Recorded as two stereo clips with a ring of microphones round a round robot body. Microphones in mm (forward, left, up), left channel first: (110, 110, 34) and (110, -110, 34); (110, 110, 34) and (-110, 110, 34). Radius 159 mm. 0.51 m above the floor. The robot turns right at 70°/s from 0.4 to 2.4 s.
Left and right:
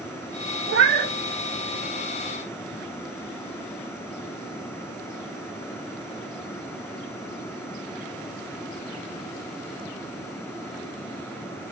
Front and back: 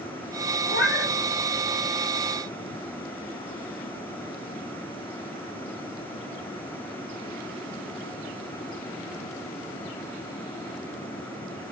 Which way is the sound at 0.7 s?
70° right.